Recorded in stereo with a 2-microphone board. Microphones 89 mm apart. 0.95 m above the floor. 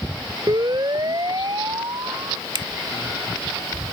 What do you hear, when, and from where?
0.5 s a siren: 50° right (ahead or behind)
2.5 s a finger snap: 55° right (ahead or behind)